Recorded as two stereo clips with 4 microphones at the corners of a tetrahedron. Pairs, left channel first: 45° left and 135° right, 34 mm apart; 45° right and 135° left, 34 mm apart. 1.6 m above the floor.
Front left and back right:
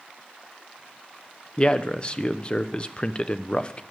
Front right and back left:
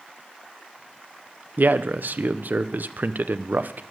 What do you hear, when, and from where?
1.6 s a man speaking: 105° left, 0.8 m